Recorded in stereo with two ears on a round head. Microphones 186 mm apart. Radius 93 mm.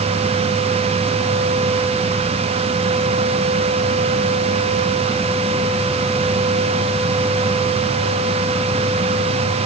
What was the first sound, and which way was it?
Only background noise.